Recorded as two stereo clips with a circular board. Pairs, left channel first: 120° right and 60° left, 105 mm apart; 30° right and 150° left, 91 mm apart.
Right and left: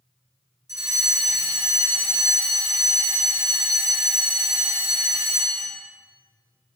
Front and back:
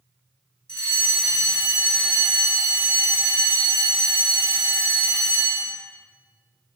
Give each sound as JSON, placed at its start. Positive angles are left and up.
{"t": 0.7, "sound": "a fire alarm", "azimuth_deg": 45, "distance_m": 3.0}